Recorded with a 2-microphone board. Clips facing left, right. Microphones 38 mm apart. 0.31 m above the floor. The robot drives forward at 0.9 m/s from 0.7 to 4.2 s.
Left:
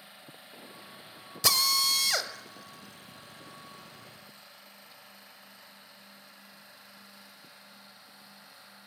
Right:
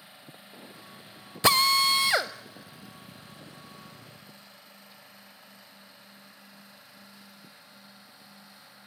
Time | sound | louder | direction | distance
1.4 | a drill | right 6 dB | 30° right (ahead or behind) | 0.6 m